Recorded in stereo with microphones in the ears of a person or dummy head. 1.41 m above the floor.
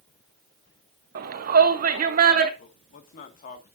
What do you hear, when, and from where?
1.1 s a shout: 60° right (ahead or behind), 1.3 m; by 2.5 s 55° right (ahead or behind), 2 m
2.6 s a man speaking: 45° left (ahead or behind), 1.6 m